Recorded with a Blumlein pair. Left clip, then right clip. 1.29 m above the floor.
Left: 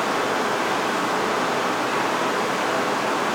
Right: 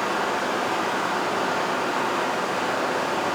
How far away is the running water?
About 1.2 m.